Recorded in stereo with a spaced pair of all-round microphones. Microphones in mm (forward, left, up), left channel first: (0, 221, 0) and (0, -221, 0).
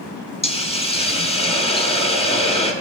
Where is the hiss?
15° left (ahead or behind), 0.8 m.